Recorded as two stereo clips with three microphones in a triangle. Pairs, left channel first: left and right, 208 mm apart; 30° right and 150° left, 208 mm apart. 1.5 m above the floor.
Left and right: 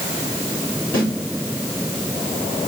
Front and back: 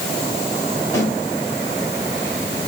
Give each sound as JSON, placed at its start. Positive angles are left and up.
{"t": 0.9, "sound": "a snare drum", "azimuth_deg": 45, "distance_m": 5.0}